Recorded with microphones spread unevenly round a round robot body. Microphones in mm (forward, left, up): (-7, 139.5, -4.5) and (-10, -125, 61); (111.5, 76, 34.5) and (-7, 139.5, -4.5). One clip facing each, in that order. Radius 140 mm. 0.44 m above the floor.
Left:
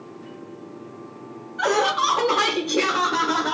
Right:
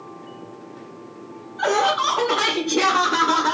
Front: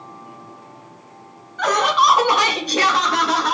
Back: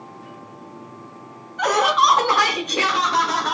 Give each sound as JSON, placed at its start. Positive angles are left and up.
{"t": 1.6, "sound": "laughter", "azimuth_deg": 105, "distance_m": 1.0}